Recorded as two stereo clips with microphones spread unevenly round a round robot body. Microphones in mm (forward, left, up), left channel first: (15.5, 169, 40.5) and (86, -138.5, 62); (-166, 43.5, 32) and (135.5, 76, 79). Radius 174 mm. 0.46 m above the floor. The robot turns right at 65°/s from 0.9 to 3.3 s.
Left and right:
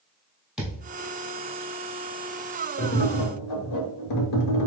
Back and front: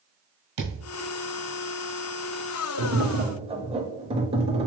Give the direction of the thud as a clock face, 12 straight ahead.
12 o'clock.